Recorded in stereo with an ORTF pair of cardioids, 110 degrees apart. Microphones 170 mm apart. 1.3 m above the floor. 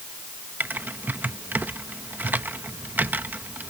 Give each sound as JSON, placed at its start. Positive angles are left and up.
{"t": 0.6, "sound": "typing on a keyboard", "azimuth_deg": -10}